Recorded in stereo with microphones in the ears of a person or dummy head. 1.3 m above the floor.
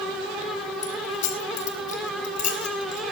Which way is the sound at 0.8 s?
45° left (ahead or behind).